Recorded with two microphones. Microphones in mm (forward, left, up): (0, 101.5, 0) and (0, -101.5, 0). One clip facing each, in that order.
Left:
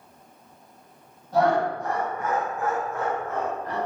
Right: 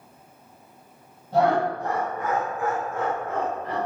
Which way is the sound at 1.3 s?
30° right (ahead or behind).